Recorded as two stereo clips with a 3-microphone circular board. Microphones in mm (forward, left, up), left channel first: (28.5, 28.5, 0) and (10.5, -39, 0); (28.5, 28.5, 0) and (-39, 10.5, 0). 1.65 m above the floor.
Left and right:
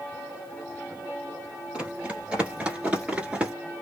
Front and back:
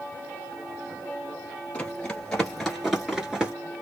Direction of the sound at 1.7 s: 45° right.